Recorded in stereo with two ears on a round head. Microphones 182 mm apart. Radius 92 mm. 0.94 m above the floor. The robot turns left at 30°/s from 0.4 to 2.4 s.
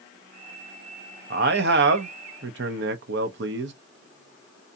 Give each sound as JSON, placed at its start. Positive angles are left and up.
{"t": 1.3, "sound": "a man speaking", "azimuth_deg": -60, "distance_m": 0.7}